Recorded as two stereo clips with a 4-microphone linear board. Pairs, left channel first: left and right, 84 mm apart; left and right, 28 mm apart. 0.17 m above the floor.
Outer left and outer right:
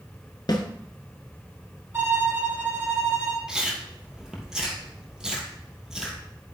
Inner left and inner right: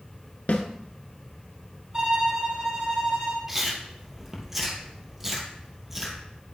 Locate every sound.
0.5 s a snare drum: 60° left (ahead or behind), 1.2 m
1.9 s a violin: 30° right (ahead or behind), 1.8 m
3.5 s chewing: 5° right (ahead or behind), 1.6 m